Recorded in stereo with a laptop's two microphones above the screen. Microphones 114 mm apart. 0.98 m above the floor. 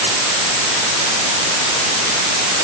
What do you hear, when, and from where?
Only background noise.